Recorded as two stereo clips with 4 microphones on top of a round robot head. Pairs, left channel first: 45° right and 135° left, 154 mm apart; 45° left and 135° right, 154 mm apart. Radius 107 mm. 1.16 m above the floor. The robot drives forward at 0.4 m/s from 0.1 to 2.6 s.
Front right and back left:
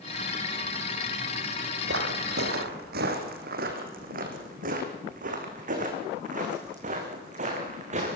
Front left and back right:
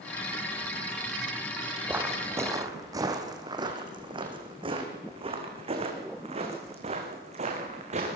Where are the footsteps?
145° left, 3 m; by 8.2 s straight behind, 5.5 m.